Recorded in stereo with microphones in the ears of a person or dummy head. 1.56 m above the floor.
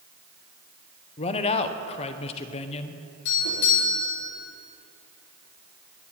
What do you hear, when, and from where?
1.2 s a man speaking: 30° left (ahead or behind), 0.8 m
3.2 s a doorbell: 60° left (ahead or behind), 5.5 m